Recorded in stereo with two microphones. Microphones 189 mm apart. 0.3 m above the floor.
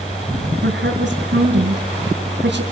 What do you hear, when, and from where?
0.6 s a woman speaking: 65° right (ahead or behind), 3.5 m